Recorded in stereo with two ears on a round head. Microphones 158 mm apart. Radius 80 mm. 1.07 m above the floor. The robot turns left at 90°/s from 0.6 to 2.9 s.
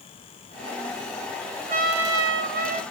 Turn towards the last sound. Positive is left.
turn(degrees=-150)